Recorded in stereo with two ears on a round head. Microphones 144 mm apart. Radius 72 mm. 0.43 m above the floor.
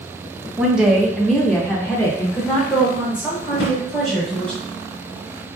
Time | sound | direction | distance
0.6 | a woman speaking | 5° right (ahead or behind) | 0.9 m
3.5 | a drawer | 80° left | 2 m